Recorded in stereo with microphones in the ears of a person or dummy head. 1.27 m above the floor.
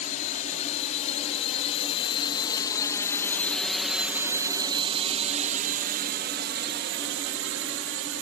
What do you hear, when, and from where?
0.0 s a drone: 50° left (ahead or behind); by 8.2 s 70° right (ahead or behind)